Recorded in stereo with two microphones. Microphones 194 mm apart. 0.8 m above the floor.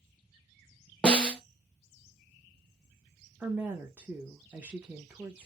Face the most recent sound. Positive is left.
turn(degrees=-10)  # may be behind; listen again after turning